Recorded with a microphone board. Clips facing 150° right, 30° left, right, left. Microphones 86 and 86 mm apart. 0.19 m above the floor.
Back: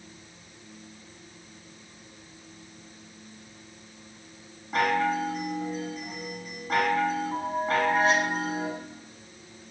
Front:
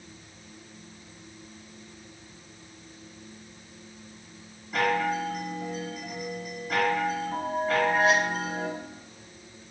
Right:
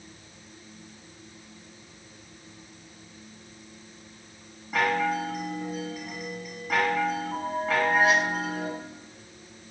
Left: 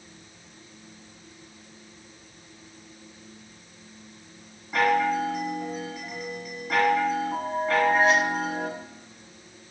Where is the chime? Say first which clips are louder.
Back 1 dB, left 3 dB; 175° right, 1.6 m.